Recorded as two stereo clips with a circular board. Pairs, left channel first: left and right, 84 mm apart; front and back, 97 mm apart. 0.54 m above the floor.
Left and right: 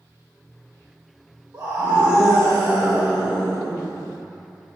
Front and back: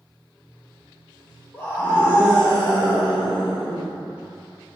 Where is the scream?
55° right, 2.5 m; by 3.9 s 35° right, 4 m.